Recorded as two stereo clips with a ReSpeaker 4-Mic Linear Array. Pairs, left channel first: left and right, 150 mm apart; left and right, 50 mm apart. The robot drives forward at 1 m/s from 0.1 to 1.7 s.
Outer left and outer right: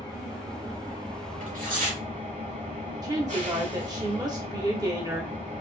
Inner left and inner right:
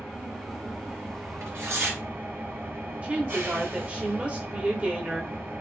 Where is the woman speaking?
25° right (ahead or behind), 0.8 m.